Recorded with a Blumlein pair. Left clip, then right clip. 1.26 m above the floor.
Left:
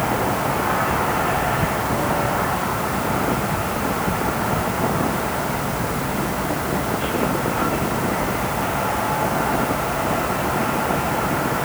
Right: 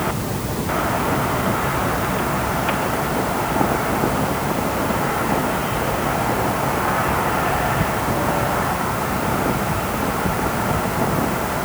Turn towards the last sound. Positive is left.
No sound to turn to.